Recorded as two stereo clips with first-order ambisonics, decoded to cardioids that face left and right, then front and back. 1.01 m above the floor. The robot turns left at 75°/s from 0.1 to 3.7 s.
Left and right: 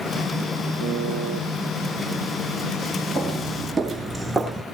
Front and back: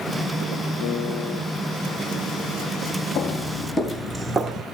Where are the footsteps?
25° left, 1.2 m; by 4.7 s straight behind, 1.0 m.